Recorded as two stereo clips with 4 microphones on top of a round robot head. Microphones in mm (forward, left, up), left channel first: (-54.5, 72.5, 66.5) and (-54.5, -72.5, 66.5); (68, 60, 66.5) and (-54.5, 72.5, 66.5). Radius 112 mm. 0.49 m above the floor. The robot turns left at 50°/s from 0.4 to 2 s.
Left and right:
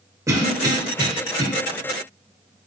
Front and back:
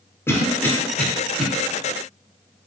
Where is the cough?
50° right, 1.0 m; by 1.5 s 105° right, 1.0 m.